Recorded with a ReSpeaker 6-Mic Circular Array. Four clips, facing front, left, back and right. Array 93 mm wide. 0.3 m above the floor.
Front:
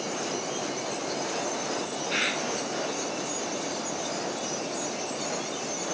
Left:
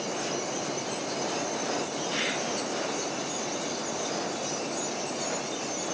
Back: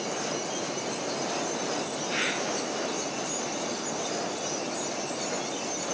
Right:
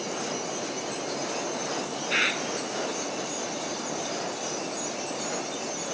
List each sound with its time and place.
2.1 s a bird: 80° right, 0.8 m